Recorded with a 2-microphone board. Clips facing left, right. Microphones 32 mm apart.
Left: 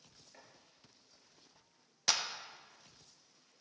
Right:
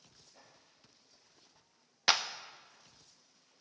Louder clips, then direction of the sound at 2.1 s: Right 5 dB; 35° right (ahead or behind).